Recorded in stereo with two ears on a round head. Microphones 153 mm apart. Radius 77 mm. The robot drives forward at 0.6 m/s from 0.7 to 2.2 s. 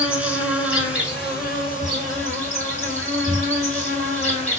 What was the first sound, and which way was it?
An insect, 5° right (ahead or behind).